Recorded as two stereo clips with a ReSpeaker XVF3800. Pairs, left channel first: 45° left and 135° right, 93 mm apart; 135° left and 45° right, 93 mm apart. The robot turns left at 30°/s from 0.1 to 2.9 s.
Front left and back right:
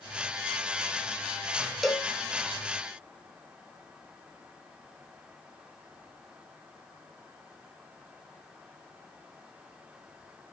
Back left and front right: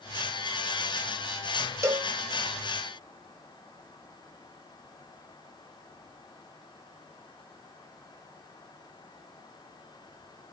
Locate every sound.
1.8 s a cowbell: 45° right, 0.6 m; by 2.1 s 55° right, 0.6 m